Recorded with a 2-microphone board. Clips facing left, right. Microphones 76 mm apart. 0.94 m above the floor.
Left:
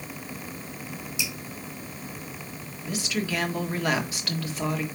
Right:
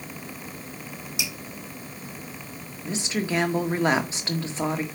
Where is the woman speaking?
30° right (ahead or behind), 1.5 m.